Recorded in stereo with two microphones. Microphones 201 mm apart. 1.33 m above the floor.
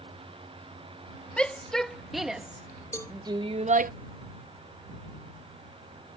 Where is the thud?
I don't hear a thud.